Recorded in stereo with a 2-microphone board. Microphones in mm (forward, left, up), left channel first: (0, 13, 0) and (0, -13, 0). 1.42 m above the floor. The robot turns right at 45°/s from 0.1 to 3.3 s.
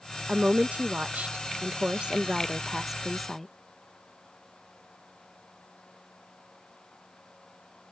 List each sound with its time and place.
0.3 s a woman speaking: 130° right; by 3.5 s 5° left